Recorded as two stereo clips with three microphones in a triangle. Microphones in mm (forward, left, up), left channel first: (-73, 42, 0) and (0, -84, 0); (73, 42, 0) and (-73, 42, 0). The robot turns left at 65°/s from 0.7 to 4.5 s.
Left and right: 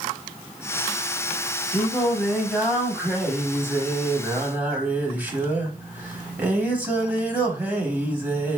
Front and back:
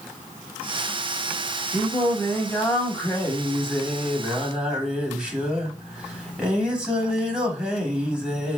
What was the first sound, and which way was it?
Singing, 70° left.